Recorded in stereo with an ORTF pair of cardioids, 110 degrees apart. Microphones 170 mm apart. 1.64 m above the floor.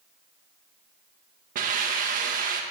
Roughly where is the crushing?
I don't hear crushing.